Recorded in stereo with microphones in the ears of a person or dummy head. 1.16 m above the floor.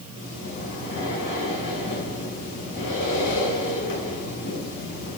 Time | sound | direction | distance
0.1 | breathing | 65° left (ahead or behind) | 6 m